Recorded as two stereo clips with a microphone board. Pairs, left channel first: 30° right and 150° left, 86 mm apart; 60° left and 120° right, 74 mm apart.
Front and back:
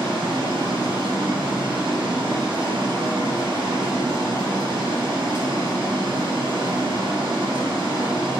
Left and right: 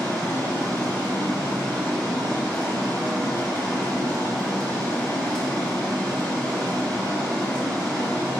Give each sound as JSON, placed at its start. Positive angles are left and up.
{"t": 0.0, "sound": "running water", "azimuth_deg": 140, "distance_m": 5.0}